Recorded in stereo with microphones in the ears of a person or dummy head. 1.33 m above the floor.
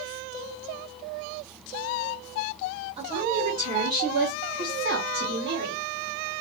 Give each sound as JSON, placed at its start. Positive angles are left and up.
{"t": 3.0, "sound": "a woman speaking", "side_deg": -35, "distance_m": 2.0}